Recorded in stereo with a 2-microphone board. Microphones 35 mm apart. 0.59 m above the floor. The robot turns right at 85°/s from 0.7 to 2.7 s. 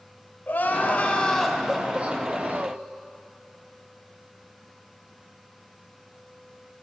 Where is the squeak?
I don't hear a squeak.